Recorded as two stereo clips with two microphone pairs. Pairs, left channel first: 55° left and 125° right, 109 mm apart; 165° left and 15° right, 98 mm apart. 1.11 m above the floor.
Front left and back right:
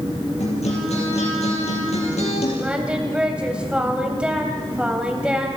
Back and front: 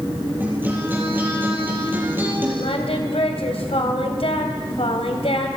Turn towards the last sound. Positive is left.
turn(degrees=155)